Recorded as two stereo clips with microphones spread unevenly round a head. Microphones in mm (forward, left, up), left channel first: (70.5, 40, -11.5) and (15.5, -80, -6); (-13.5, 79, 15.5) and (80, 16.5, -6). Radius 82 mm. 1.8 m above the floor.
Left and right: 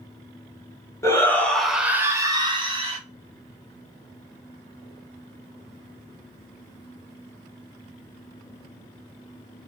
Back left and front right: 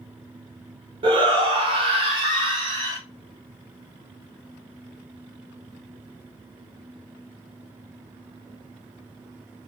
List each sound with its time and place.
1.0 s a shout: 5° left, 0.8 m; by 3.0 s 100° right, 0.9 m